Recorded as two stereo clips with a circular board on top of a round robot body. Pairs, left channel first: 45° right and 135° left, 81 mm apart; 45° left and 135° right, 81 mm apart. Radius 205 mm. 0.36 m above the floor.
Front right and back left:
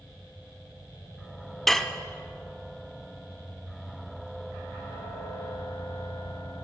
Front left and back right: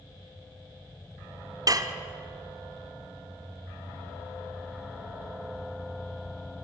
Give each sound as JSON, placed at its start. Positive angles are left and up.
{"t": 1.7, "sound": "dishes clattering", "azimuth_deg": -130, "distance_m": 0.7}